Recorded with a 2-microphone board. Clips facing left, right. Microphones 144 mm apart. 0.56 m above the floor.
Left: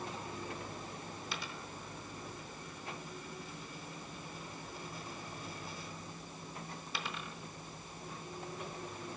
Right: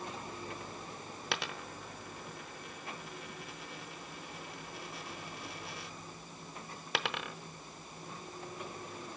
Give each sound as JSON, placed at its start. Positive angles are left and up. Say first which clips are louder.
{"t": 1.3, "sound": "a dropped coin", "louder": "right 4 dB", "side_deg": -70, "distance_m": 0.7}